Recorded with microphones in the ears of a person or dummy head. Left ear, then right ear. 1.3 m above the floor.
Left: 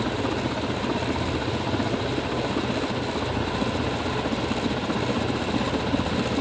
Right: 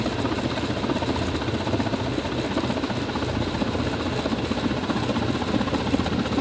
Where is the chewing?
I don't hear chewing.